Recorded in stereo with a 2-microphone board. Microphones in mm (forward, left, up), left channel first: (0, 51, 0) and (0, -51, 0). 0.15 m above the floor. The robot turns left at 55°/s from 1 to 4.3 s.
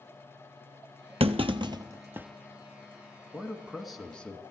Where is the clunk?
70° right (ahead or behind), 0.7 m; by 2.3 s 15° right (ahead or behind), 0.7 m.